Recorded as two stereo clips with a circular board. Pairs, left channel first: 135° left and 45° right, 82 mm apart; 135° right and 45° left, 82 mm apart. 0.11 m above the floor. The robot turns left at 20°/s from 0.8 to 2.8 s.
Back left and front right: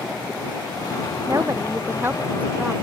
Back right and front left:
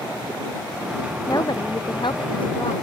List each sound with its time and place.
1.3 s a woman speaking: 95° right; by 2.7 s 125° right